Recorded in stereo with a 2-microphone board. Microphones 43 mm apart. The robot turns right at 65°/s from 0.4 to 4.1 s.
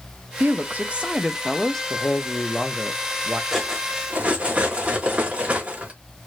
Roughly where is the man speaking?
Behind left.